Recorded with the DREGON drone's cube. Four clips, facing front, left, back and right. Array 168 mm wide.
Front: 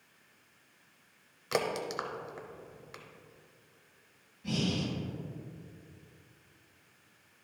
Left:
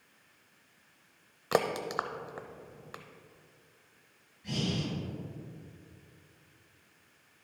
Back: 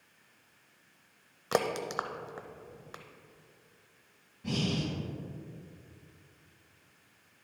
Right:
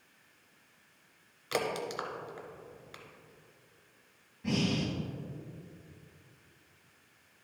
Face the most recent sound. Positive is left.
turn(degrees=-115)